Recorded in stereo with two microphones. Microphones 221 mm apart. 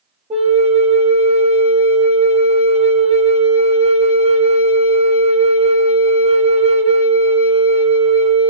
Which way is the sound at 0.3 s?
30° right (ahead or behind).